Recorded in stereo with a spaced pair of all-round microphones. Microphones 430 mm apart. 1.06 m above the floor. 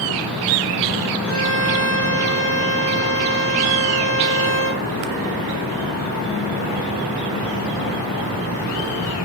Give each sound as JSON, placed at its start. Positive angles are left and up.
{"t": 1.2, "sound": "a violin", "side_deg": 35, "distance_m": 5.0}